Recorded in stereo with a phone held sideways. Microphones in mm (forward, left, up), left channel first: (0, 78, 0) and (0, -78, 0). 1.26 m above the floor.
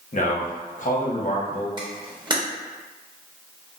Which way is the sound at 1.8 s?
30° right (ahead or behind).